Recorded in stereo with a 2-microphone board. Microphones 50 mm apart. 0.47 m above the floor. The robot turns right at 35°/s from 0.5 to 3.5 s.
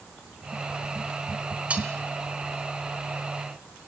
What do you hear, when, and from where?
1.7 s cutlery clinking: 25° right (ahead or behind), 3 m; by 1.9 s 20° right (ahead or behind), 3 m